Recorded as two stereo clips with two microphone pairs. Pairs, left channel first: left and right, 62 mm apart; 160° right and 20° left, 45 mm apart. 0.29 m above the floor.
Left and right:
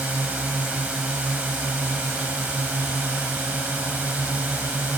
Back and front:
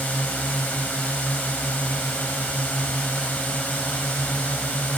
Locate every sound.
0.0 s a drone: 140° right